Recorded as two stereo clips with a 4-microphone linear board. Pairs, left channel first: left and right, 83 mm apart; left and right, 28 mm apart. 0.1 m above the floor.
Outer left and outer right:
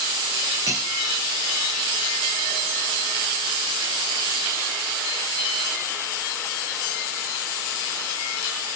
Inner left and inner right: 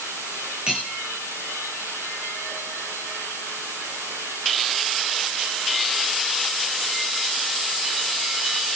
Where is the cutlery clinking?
35° right (ahead or behind), 4.5 m.